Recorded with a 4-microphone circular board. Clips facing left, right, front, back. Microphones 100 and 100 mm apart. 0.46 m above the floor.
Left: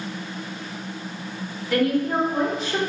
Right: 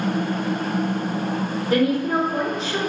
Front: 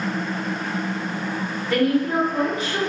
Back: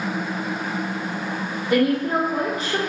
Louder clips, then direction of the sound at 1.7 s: Right 1 dB, even; 120° right.